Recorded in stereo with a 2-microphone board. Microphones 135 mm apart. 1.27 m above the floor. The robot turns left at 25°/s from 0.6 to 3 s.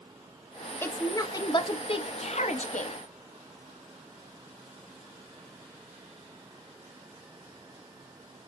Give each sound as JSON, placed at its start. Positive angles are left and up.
{"t": 0.8, "sound": "a woman speaking", "azimuth_deg": 165, "distance_m": 0.6}